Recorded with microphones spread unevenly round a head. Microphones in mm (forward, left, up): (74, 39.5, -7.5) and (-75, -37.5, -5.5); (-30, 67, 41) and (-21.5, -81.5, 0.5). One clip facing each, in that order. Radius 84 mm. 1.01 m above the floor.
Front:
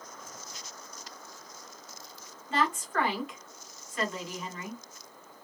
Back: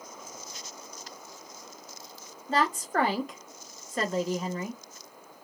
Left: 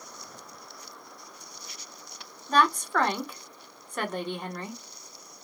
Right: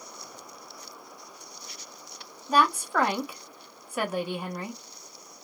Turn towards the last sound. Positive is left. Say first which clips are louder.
# back 3 dB, even
turn(degrees=-135)